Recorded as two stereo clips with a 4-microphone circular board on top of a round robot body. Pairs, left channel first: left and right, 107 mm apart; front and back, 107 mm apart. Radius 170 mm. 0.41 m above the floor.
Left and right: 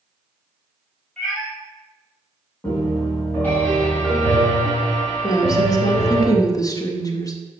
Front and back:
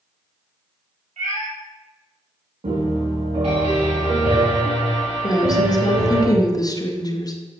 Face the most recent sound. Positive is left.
turn(degrees=45)